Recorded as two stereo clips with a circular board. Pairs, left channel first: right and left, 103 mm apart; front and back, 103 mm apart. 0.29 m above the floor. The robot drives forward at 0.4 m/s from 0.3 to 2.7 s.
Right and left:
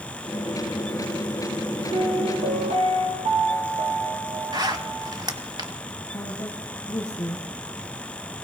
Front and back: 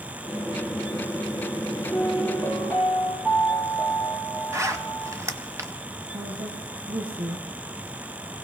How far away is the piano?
About 3.5 m.